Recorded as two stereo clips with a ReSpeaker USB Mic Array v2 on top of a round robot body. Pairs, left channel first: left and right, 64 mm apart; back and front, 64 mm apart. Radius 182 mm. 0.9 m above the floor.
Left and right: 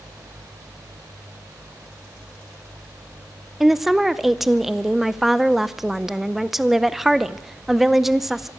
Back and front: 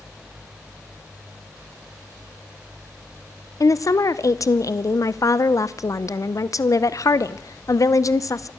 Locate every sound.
3.6 s a woman speaking: 175° right, 0.9 m